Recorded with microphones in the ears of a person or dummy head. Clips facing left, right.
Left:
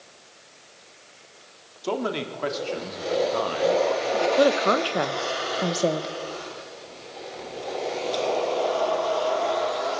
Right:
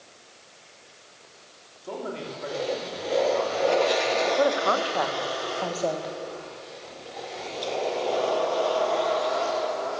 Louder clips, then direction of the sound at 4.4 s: Left 3 dB; 40° left (ahead or behind).